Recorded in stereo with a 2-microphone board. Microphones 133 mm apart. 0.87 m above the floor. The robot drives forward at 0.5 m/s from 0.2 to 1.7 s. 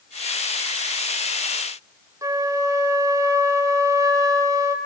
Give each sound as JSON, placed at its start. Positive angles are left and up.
{"t": 2.2, "sound": "a flute", "side_deg": -25, "distance_m": 0.7}